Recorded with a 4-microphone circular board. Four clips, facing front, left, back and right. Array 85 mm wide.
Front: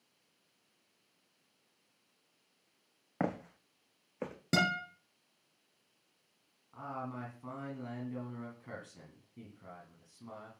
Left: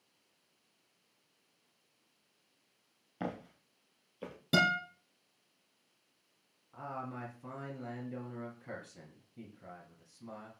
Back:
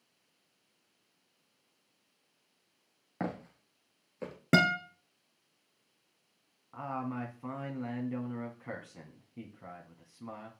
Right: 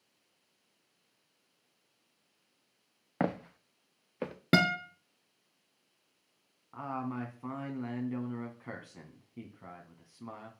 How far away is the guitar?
About 2 m.